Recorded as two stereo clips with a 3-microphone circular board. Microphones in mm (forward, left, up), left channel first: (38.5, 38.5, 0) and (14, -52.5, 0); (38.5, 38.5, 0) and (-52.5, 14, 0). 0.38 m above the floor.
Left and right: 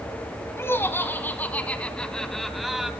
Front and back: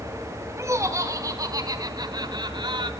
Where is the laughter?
140° left, 3.5 m; by 2.9 s 170° left, 2.5 m.